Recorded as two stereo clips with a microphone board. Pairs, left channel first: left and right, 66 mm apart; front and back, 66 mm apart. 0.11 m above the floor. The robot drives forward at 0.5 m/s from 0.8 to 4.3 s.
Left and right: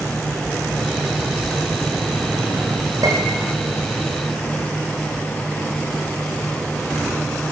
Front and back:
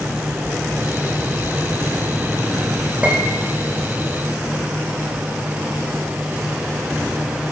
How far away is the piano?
About 5 m.